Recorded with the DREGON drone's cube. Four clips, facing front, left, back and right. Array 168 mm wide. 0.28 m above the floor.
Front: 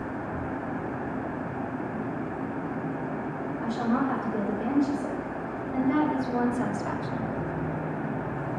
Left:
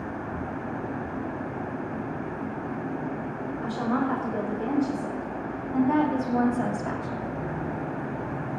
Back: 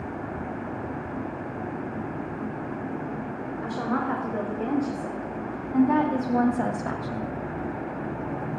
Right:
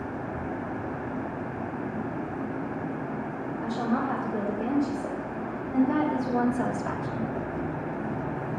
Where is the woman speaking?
145° left, 4.5 m; by 7.3 s 145° right, 1.3 m.